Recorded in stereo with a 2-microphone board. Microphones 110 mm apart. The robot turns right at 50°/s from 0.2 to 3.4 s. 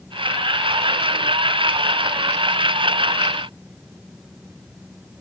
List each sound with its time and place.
Only background noise.